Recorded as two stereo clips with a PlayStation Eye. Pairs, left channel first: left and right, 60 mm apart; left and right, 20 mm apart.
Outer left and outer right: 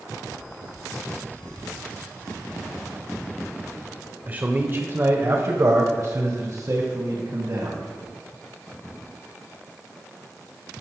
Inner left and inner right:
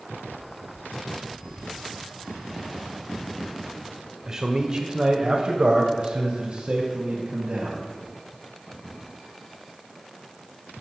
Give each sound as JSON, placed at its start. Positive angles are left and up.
{"t": 4.3, "sound": "a man speaking", "side_deg": -25, "distance_m": 1.4}